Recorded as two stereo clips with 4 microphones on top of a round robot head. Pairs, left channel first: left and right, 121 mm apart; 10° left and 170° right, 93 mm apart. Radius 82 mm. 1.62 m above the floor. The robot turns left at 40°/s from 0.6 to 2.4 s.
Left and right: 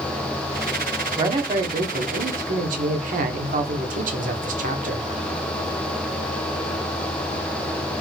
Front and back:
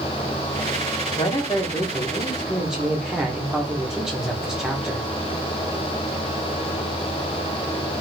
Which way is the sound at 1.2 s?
35° right.